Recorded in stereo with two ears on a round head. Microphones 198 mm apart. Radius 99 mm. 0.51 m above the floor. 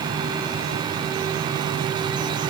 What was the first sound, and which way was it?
Only background noise.